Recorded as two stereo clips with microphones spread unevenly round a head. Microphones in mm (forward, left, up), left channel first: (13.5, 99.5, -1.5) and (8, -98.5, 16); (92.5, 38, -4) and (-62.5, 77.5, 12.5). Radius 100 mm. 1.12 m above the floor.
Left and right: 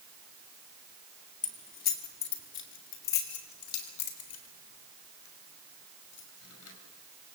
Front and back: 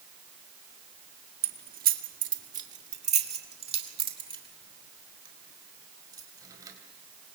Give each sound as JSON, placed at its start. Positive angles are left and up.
{"t": 1.4, "sound": "keys jangling", "azimuth_deg": 145, "distance_m": 1.9}